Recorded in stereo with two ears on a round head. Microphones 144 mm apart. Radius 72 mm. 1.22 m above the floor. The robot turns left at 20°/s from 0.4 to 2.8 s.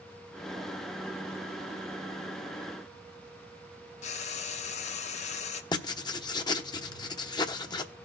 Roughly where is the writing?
Left.